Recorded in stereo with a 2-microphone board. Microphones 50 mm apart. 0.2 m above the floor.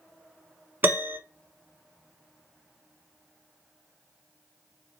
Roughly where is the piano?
Right.